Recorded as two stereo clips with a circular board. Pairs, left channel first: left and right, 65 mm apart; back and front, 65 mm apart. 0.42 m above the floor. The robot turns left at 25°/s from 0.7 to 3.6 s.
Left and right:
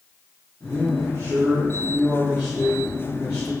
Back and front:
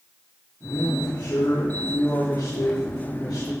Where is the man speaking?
140° right, 6 m; by 3.5 s 150° left, 6 m.